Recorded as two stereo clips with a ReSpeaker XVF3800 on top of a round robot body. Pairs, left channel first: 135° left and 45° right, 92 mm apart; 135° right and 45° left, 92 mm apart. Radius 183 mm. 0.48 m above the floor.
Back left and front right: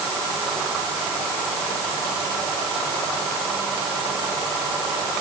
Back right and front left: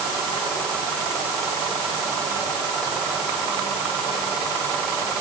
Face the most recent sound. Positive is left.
No sound to turn to.